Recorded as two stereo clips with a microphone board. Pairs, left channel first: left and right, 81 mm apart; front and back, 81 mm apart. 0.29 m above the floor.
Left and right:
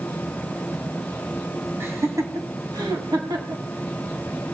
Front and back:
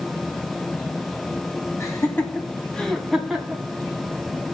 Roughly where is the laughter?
Ahead right.